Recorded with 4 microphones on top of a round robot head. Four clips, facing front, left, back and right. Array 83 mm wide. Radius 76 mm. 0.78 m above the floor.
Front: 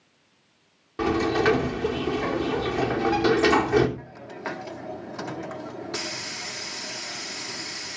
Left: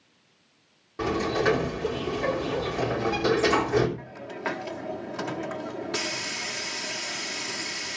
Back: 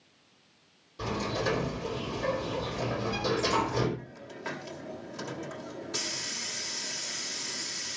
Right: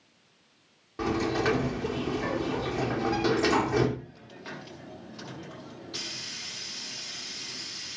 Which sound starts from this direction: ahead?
A sliding door, at 1.0 s.